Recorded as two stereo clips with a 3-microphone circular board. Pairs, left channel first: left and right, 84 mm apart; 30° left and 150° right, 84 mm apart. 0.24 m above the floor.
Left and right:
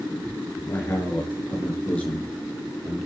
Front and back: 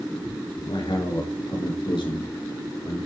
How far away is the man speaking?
About 3.5 m.